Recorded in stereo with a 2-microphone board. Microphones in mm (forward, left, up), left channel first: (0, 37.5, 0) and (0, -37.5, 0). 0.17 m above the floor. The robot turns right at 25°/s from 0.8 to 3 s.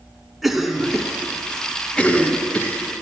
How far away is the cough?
About 1.8 m.